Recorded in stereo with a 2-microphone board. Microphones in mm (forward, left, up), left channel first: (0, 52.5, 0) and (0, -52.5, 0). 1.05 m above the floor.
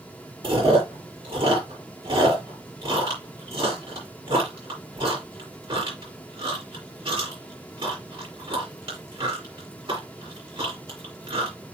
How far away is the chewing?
About 5.5 m.